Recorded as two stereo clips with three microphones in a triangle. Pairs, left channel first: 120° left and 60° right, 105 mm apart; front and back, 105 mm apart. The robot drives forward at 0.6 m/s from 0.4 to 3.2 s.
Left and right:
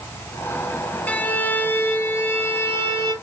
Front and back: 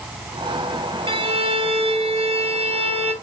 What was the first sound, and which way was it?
A violin, 165° right.